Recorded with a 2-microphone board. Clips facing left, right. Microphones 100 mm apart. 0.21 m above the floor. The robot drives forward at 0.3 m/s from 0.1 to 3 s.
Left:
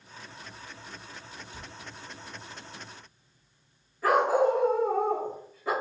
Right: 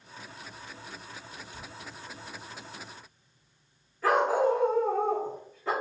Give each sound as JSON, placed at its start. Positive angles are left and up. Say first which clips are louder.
{"t": 1.5, "sound": "a cupboard door", "louder": "even", "side_deg": 20, "distance_m": 0.6}
{"t": 4.0, "sound": "a dog barking", "louder": "left 1 dB", "side_deg": 10, "distance_m": 1.6}